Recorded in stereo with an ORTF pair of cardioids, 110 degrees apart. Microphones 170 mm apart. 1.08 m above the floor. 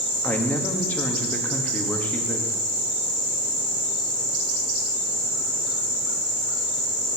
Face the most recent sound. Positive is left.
turn(degrees=10)